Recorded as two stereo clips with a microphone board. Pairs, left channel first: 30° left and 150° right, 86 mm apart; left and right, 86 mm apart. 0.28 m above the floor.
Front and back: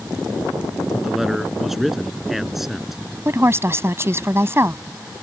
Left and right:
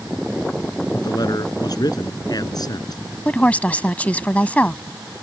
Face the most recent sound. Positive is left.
turn(degrees=160)